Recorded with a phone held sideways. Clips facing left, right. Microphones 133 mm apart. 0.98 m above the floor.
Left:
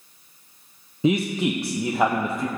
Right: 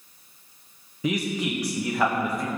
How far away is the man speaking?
About 0.5 m.